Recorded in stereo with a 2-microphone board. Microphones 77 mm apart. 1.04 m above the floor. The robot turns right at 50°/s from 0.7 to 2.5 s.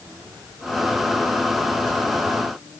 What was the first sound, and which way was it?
Only background noise.